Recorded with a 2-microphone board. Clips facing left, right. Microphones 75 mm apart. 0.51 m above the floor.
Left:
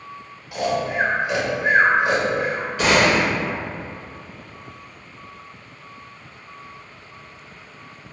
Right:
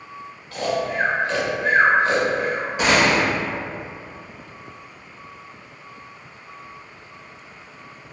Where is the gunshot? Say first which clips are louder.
Left 1 dB; 20° right (ahead or behind), 1.4 m.